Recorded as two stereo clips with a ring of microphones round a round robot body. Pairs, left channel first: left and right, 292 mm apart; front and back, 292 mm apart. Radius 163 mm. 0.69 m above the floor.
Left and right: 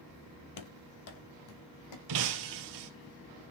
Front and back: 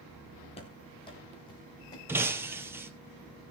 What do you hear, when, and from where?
0.6 s running footsteps: 70° left, 1.2 m; by 2.0 s 80° left, 2.5 m
2.1 s breaking glass: 100° right, 1.2 m